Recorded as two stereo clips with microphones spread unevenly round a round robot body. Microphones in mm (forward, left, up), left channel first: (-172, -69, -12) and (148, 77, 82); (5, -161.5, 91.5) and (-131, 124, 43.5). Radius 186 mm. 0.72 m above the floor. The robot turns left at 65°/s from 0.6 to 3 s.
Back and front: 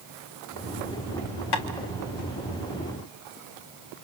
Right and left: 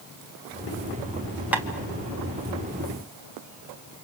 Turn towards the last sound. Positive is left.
turn(degrees=105)